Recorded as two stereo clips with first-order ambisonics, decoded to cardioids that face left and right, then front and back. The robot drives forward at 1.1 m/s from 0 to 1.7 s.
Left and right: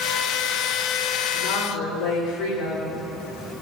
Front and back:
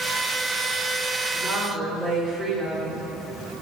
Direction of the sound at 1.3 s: 100° left.